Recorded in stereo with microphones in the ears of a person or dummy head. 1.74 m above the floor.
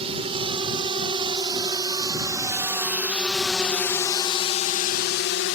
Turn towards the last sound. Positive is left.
turn(degrees=65)  # may be behind; listen again after turning